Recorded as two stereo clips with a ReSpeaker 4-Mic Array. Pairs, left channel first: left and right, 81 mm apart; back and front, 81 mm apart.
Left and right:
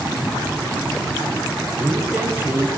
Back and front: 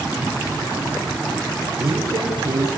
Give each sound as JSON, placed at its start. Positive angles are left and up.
{"t": 1.7, "sound": "a man speaking", "azimuth_deg": -20, "distance_m": 4.5}